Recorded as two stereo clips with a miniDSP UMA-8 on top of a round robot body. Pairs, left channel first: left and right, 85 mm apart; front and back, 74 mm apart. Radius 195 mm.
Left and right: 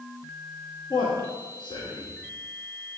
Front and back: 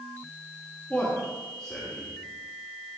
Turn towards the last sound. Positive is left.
turn(degrees=80)